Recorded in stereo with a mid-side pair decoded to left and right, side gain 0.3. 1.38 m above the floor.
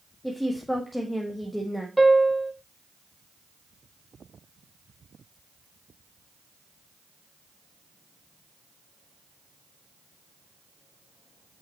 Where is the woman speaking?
10° left, 1.5 m.